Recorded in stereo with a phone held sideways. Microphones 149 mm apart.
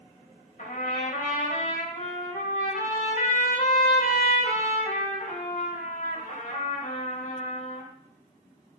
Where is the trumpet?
60° left (ahead or behind), 5 m.